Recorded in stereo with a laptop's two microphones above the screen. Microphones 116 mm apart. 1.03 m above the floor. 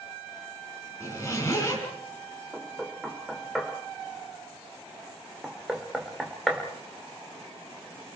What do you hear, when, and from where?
1.0 s a zipper: 25° left (ahead or behind), 6 m
2.5 s knocking: centre (ahead or behind), 2 m